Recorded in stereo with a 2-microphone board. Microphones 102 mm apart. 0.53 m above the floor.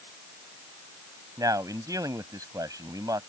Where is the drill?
No drill in this recording.